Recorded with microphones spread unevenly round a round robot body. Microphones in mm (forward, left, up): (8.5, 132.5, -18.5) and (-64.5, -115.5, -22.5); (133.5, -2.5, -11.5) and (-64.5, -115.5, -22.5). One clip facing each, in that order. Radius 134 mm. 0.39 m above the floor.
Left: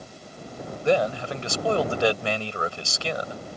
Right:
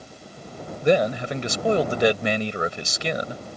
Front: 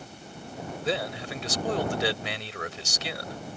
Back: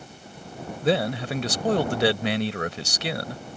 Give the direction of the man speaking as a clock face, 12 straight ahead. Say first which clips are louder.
Right 3 dB, back 8 dB; 6 o'clock.